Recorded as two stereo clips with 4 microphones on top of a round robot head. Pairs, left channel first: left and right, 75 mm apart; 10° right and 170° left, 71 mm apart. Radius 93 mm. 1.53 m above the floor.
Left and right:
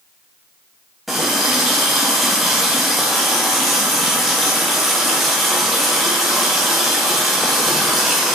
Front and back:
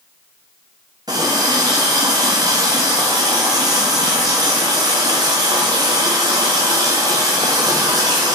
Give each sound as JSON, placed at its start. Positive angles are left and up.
{"t": 1.1, "sound": "a running tap", "azimuth_deg": -175, "distance_m": 0.5}